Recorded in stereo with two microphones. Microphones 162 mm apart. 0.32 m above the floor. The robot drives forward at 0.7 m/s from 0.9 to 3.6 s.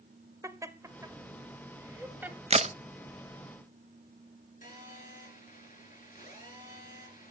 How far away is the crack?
About 0.6 m.